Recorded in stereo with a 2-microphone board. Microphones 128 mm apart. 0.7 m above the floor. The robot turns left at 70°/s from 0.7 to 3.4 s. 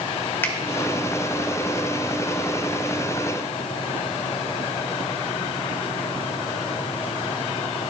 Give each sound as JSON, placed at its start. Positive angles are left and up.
{"t": 0.4, "sound": "a finger snap", "side_deg": 15, "distance_m": 1.5}